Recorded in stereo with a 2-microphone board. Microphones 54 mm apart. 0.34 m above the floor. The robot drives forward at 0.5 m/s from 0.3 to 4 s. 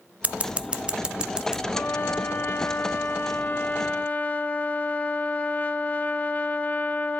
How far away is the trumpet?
About 0.9 m.